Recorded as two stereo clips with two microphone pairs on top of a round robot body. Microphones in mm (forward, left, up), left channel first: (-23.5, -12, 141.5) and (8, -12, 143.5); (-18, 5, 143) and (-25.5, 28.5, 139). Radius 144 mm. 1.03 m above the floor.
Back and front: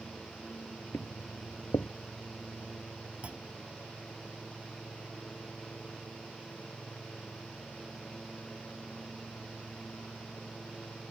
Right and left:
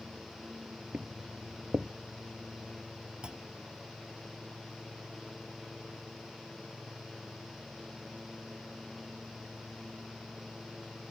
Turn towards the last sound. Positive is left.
turn(degrees=50)